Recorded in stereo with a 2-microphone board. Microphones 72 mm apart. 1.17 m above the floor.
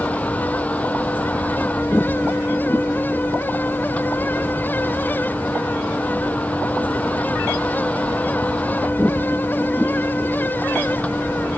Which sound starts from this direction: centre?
A vehicle, at 0.0 s.